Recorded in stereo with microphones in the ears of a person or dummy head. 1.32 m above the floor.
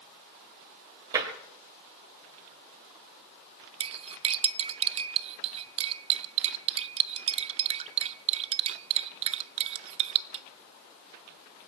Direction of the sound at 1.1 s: 20° right (ahead or behind).